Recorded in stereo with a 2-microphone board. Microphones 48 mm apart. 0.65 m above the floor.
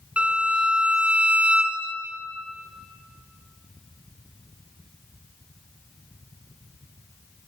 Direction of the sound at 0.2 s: 20° right (ahead or behind).